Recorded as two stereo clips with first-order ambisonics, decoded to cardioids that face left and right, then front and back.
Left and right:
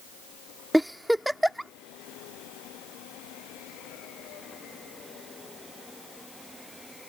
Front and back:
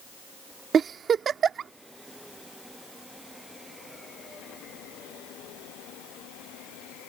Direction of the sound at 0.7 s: 175° right.